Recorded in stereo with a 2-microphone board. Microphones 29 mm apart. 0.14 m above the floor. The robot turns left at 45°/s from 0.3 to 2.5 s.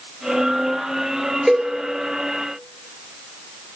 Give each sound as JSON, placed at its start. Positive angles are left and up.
{"t": 1.5, "sound": "a cowbell", "side_deg": -15, "distance_m": 1.3}